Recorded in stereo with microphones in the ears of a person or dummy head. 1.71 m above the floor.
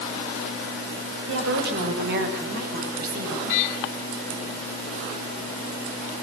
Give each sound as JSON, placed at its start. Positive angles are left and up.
{"t": 1.3, "sound": "a woman speaking", "side_deg": -65, "distance_m": 5.5}